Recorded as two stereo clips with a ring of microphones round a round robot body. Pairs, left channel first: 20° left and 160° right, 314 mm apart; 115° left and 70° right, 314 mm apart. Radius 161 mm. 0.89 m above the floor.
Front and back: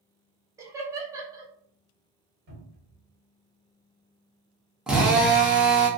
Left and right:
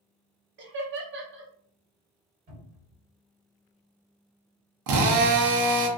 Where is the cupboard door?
125° right, 1.7 m.